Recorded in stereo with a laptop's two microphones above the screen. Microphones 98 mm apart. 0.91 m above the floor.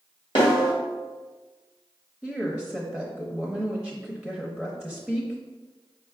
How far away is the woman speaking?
About 0.7 m.